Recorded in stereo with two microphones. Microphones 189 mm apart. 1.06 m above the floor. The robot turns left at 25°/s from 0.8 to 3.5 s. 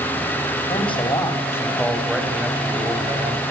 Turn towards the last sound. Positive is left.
turn(degrees=-35)